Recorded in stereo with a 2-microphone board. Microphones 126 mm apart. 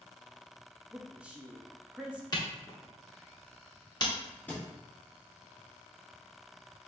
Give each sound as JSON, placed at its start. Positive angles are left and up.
{"t": 0.9, "sound": "a man speaking", "side_deg": -10, "distance_m": 0.5}
{"t": 2.3, "sound": "a camera shutter", "side_deg": 35, "distance_m": 1.0}
{"t": 4.5, "sound": "a thud", "side_deg": 15, "distance_m": 1.2}